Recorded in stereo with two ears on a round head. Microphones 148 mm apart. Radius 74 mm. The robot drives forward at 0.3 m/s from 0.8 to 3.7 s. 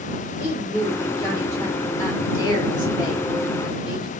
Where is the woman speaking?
20° left (ahead or behind), 1.3 m; by 4.1 s 25° left (ahead or behind), 1.1 m.